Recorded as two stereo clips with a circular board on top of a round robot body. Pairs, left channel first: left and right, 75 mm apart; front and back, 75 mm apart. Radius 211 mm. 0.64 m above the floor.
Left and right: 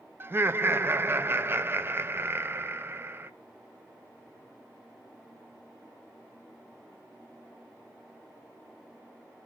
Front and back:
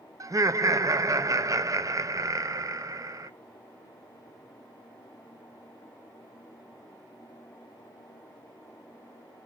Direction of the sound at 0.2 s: 145° right.